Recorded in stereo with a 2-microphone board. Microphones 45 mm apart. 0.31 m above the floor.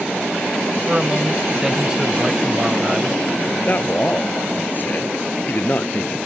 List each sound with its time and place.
0.9 s a man speaking: 15° right (ahead or behind)
3.6 s a man speaking: 45° left (ahead or behind)